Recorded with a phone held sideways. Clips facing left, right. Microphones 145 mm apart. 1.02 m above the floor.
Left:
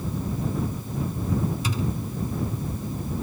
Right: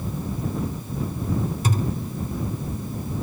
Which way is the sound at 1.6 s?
50° right (ahead or behind).